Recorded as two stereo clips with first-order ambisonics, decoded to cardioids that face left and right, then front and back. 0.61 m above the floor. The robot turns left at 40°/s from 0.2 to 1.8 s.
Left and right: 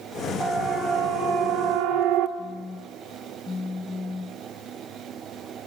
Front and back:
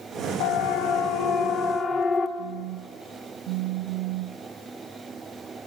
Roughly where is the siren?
Ahead.